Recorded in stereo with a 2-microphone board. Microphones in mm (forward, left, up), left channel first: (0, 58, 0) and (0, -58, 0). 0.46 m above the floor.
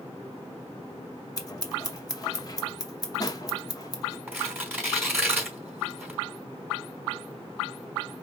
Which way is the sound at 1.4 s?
30° left (ahead or behind).